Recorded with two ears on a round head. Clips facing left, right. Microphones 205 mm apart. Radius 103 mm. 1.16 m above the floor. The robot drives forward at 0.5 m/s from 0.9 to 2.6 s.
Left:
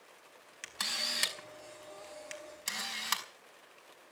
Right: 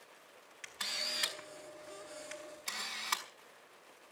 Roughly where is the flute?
I don't hear a flute.